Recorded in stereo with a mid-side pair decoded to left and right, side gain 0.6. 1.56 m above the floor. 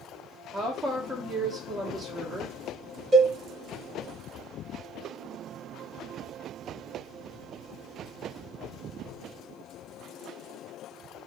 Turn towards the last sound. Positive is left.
turn(degrees=-40)